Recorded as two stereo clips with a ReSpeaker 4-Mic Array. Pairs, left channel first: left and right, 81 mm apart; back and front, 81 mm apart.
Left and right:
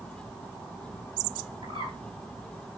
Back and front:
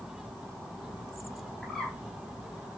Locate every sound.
1.6 s a bird: 95° right, 4.5 m